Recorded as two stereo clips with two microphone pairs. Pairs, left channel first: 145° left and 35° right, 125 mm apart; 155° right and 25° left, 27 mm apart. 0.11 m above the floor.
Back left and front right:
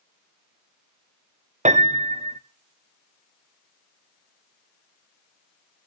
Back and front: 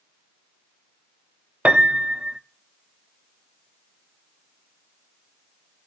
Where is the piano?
10° right, 1.2 m.